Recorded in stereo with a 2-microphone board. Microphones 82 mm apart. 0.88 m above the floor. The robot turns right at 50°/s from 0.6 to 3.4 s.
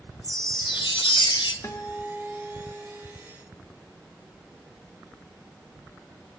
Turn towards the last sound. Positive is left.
turn(degrees=-130)